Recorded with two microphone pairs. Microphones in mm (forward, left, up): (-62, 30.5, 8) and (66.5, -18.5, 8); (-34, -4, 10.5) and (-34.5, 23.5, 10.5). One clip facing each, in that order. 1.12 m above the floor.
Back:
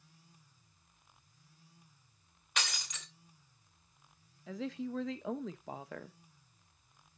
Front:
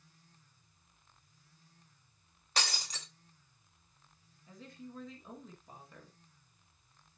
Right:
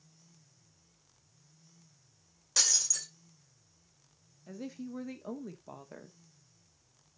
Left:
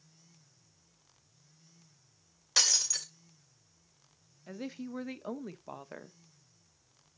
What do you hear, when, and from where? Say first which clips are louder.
2.6 s breaking glass: front 2 dB, left 2 dB; 35° left, 2 m
4.5 s a woman speaking: back 11 dB, left 1 dB; 150° left, 1.0 m